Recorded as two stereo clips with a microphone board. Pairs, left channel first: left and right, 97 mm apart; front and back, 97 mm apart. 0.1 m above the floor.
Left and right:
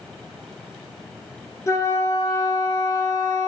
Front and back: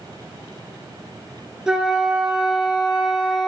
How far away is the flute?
About 0.8 m.